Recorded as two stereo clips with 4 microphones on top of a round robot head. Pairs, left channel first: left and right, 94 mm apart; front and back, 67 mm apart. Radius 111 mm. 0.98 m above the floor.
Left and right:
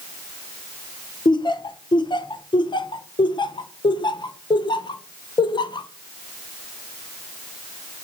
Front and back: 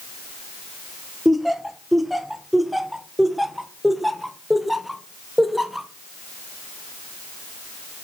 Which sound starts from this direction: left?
Laughter, at 1.2 s.